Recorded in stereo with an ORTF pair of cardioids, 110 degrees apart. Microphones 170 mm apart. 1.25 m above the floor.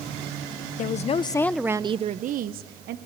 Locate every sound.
0.8 s a woman speaking: 50° left, 1.0 m; by 3.0 s 70° right, 1.4 m